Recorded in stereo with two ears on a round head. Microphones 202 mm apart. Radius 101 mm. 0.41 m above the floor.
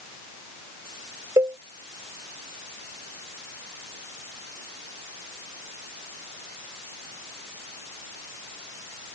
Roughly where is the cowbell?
Centre.